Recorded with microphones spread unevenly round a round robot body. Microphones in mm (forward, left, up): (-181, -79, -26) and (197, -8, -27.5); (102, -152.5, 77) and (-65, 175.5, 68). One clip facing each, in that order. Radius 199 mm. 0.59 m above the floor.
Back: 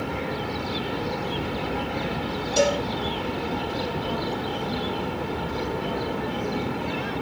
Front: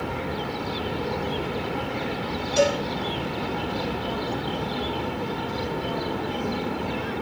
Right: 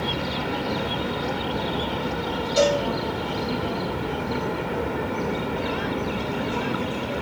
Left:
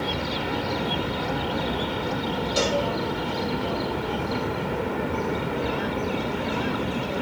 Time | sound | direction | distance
2.6 | a cowbell | 170° left | 6 m